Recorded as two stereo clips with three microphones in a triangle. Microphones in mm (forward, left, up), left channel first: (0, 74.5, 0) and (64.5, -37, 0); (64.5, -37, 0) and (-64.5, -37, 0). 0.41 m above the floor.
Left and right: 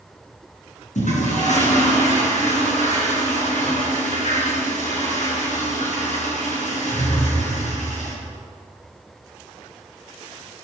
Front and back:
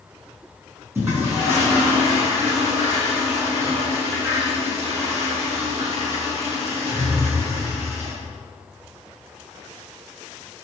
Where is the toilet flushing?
110° left, 6 m.